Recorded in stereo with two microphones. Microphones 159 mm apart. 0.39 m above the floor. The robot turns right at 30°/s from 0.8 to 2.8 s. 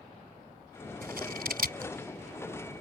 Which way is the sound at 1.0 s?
70° right (ahead or behind).